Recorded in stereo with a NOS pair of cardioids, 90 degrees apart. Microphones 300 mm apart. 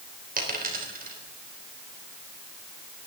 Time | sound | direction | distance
0.4 | a dropped coin | 30° right | 3.5 m